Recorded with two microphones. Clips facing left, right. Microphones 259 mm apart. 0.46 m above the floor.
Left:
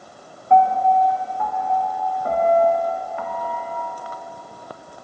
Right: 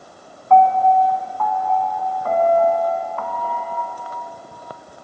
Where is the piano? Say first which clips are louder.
Right 2 dB; 15° left (ahead or behind), 0.9 m.